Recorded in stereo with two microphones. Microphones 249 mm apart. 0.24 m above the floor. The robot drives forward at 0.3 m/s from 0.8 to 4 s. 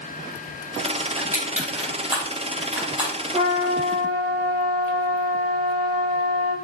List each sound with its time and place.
1.2 s crushing: 5° right (ahead or behind), 3.5 m
3.3 s a trumpet: 15° right (ahead or behind), 2.5 m